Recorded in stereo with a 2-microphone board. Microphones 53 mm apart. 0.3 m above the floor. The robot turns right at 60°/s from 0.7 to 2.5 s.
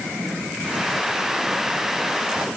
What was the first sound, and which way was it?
Only background noise.